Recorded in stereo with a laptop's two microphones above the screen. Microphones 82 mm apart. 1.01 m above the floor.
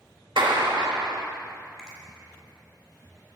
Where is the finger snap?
5° right (ahead or behind), 4.5 m.